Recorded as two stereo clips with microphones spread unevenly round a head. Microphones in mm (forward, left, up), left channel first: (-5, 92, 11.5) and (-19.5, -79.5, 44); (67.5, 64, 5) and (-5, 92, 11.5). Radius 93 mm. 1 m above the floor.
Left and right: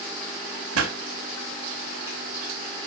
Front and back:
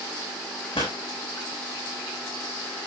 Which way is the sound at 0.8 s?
85° right.